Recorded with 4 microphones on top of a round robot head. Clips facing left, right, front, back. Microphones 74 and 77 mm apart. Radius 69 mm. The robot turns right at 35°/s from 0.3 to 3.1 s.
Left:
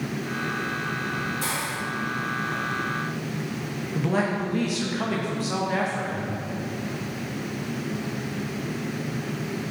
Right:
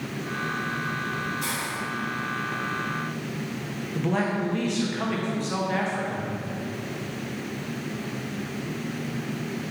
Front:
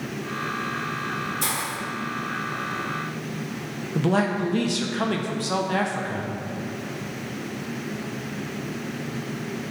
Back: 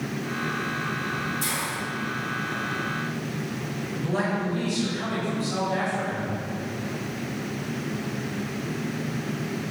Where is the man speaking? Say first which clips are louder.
Left 1 dB, front 5 dB; 5° left, 1.3 m.